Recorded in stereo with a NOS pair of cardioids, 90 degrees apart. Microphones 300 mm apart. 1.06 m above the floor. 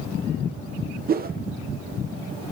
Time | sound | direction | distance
1.1 | a whoosh | 30° right | 0.6 m